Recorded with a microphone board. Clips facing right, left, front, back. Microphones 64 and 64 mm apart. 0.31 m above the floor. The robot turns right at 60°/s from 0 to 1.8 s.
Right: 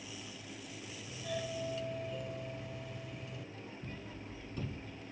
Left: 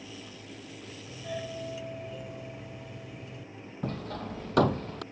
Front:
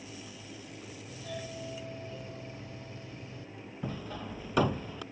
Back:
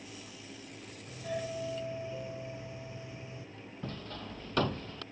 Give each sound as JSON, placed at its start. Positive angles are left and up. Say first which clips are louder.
{"t": 1.1, "sound": "a doorbell", "louder": "left 2 dB, back 5 dB", "azimuth_deg": 135}
{"t": 3.8, "sound": "hammering", "louder": "left 11 dB, front 3 dB", "azimuth_deg": 80}